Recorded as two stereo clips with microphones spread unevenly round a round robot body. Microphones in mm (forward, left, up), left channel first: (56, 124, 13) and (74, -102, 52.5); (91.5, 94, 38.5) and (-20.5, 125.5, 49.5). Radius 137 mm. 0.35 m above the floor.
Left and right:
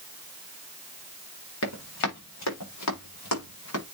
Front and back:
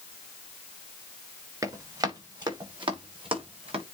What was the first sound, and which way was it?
Running footsteps, 105° left.